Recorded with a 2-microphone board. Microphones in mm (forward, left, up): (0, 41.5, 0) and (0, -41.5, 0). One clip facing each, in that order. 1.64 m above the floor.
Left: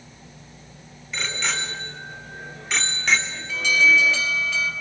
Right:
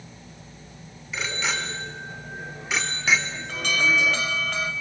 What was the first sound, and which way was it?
A bicycle bell, 5° right (ahead or behind).